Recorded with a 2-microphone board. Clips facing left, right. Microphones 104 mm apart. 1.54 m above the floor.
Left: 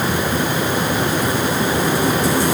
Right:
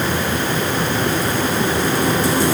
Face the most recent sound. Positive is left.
No sound to turn to.